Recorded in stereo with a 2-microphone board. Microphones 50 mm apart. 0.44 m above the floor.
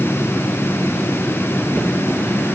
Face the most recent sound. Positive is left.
No sound to turn to.